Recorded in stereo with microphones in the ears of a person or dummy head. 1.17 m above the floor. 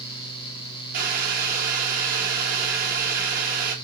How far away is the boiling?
About 1.1 m.